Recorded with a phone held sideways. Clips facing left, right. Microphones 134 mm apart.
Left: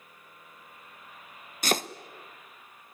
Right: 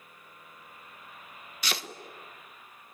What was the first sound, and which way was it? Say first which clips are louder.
Chopping: left 8 dB; 45° left (ahead or behind).